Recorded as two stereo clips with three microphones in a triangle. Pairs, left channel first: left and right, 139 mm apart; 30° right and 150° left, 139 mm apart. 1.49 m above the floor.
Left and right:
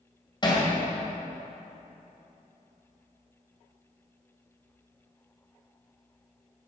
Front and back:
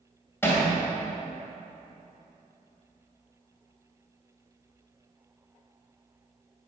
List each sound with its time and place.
0.4 s hammering: 40° left, 2 m